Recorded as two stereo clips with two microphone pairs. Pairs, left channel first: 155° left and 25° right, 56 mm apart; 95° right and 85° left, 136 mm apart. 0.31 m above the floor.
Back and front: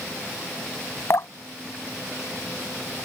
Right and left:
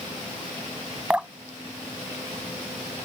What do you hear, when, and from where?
1.1 s dripping: 165° left